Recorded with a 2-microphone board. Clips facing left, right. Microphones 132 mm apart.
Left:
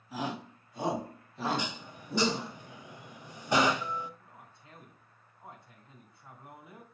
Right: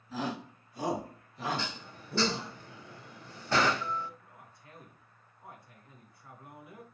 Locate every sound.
0.1 s a shout: 15° left (ahead or behind), 2 m; by 2.5 s 45° left (ahead or behind), 3 m
1.6 s dishes clattering: 15° left (ahead or behind), 0.6 m
4.2 s a man speaking: 25° left (ahead or behind), 2.5 m